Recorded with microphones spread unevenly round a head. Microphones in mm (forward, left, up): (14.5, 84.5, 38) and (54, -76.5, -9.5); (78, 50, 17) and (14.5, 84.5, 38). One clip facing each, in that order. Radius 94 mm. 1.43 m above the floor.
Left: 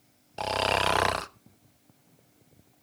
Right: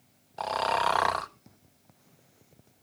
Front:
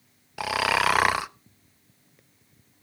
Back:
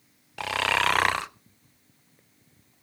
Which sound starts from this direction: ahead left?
Snoring, at 0.4 s.